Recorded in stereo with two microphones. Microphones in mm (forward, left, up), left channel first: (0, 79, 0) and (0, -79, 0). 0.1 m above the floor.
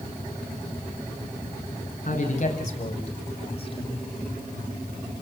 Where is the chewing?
No chewing in this recording.